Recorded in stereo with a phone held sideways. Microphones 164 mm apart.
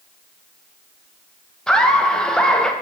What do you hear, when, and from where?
1.7 s laughter: 5° left (ahead or behind), 0.8 m